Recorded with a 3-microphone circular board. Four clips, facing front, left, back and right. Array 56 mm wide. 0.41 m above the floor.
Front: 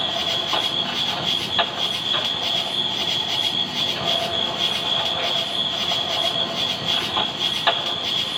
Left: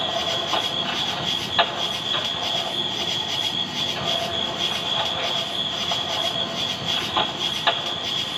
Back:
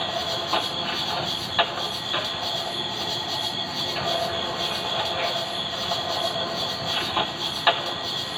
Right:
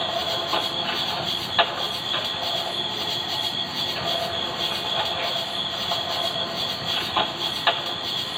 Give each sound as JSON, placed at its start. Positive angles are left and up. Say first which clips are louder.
{"t": 0.0, "sound": "an insect", "louder": "left 1 dB, front 2 dB", "azimuth_deg": 20}